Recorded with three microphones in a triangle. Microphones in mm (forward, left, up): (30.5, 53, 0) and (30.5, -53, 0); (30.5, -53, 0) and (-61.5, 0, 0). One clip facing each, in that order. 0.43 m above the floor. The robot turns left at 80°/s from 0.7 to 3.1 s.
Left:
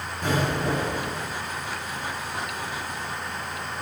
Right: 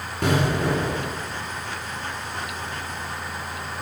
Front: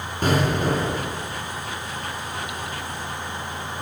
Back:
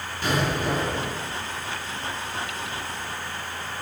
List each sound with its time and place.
0.2 s an explosion: 75° right, 2 m; by 1.2 s 115° right, 2 m